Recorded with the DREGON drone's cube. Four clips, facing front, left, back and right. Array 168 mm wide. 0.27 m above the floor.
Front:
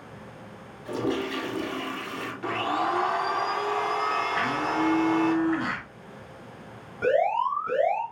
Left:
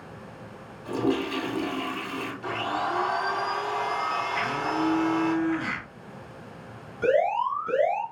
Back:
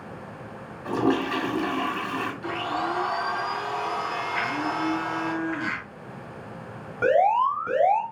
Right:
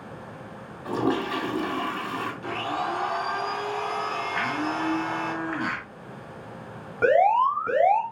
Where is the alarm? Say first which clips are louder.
Right 4 dB, back 3 dB; 120° right, 3 m.